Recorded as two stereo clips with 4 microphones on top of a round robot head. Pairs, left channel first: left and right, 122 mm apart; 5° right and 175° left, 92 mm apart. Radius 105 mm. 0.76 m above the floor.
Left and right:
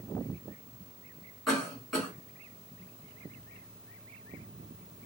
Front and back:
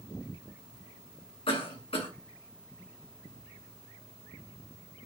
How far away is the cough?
About 2 m.